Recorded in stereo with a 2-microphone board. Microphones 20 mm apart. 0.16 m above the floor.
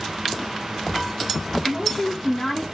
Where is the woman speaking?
10° left (ahead or behind), 1.3 m; by 2.7 s 20° left (ahead or behind), 1.2 m.